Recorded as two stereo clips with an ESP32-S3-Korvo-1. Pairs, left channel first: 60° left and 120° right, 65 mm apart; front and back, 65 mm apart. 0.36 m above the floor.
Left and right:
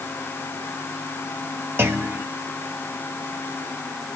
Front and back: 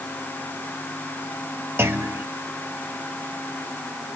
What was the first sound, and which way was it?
A clunk, 150° right.